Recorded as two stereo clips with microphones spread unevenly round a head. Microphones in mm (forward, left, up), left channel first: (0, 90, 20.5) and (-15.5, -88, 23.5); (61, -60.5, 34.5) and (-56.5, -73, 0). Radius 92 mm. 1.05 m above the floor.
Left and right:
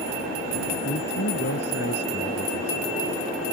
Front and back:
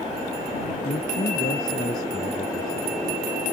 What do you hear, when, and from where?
0.8 s a man speaking: 50° left